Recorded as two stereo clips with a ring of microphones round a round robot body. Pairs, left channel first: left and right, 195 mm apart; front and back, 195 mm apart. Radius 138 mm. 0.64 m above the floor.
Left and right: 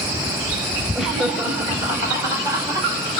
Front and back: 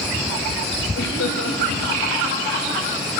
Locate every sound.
0.9 s laughter: 5° right, 3.5 m; by 2.9 s 20° right, 4.5 m